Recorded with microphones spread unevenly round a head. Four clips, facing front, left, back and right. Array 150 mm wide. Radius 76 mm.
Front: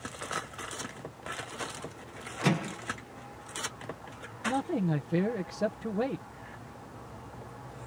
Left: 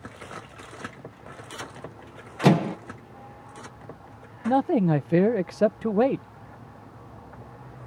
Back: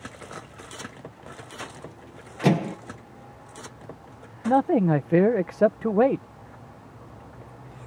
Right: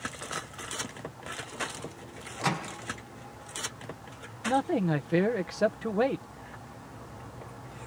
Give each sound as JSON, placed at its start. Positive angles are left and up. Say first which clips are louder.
{"t": 2.4, "sound": "a microwave", "louder": "left 11 dB, back 7 dB", "azimuth_deg": 115}
{"t": 4.5, "sound": "a man speaking", "louder": "left 5 dB, back 10 dB", "azimuth_deg": 165}